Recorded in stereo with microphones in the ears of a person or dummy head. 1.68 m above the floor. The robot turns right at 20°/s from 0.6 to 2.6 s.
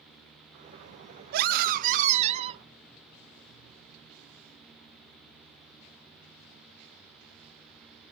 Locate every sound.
1.3 s a scream: 55° right (ahead or behind), 0.6 m; by 2.6 s 30° right (ahead or behind), 0.6 m